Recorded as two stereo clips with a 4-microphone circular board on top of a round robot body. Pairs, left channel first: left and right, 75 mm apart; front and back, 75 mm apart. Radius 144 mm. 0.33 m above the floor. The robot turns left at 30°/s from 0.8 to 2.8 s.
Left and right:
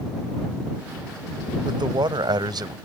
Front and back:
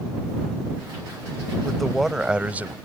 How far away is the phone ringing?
No phone ringing in this recording.